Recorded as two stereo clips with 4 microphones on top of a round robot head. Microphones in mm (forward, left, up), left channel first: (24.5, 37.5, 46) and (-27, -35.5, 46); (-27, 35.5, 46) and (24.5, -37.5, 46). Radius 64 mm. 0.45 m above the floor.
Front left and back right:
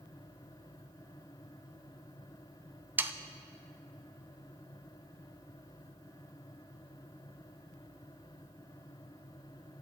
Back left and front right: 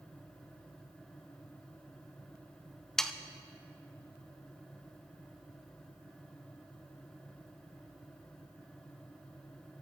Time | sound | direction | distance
3.0 | sawing | 155° right | 0.6 m